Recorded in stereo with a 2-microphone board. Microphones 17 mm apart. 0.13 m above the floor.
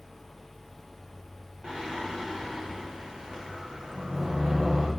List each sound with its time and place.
1.6 s singing: 70° right (ahead or behind), 4.5 m